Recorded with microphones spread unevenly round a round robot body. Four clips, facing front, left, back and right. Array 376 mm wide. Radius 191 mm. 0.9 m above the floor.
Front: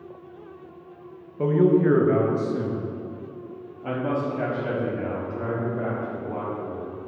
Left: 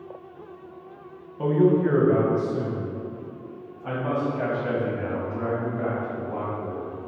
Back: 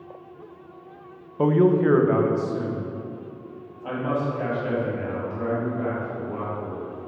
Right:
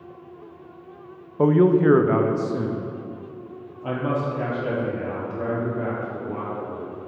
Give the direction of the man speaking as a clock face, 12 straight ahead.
3 o'clock.